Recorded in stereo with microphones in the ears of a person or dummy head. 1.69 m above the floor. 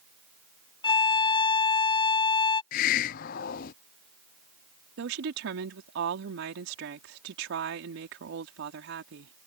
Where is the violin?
25° left (ahead or behind).